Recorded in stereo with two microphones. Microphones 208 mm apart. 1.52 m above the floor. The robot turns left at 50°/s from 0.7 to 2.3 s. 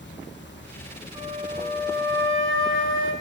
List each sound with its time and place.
0.0 s running water: 65° left, 1.1 m; by 3.2 s 15° right, 1.1 m
1.1 s a flute: 25° right, 6 m; by 3.1 s 85° right, 6 m